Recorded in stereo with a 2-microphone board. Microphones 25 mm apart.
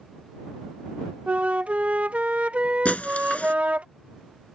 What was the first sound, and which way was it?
A flute, 70° right (ahead or behind).